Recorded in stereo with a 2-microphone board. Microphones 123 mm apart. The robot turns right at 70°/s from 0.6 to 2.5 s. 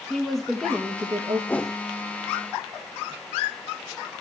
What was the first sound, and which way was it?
A woman speaking, straight behind.